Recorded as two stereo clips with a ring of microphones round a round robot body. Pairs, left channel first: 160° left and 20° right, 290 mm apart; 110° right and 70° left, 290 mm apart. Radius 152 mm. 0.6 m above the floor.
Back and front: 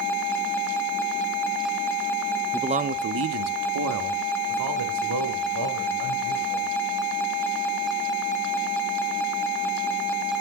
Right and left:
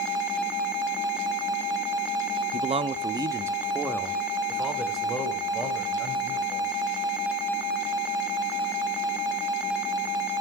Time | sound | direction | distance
2.5 | a man speaking | 45° left | 0.6 m